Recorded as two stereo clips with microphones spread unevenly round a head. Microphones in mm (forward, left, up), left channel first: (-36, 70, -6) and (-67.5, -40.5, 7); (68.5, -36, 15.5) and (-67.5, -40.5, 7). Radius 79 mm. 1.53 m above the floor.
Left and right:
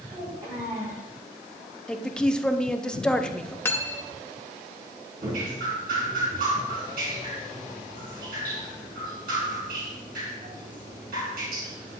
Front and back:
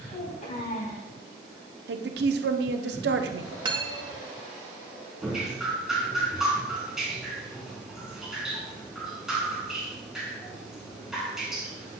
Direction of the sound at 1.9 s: 160° left.